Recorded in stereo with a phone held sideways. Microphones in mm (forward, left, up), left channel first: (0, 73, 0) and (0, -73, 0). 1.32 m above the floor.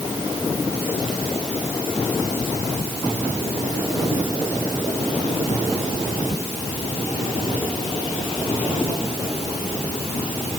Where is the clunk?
No clunk in this recording.